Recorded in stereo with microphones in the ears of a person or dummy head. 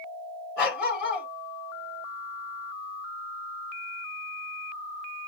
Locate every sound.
0.6 s a dog barking: 5° right (ahead or behind), 3 m